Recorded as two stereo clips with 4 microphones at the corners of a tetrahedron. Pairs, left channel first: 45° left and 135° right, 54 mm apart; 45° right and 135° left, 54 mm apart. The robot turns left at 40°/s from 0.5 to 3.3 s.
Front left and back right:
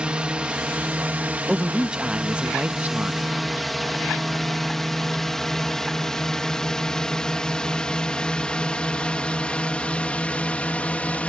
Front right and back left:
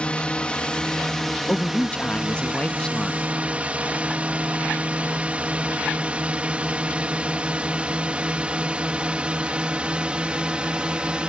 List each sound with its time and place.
0.0 s a drone: 90° right; by 11.3 s 80° left
1.5 s a man speaking: 50° right; by 3.2 s 120° right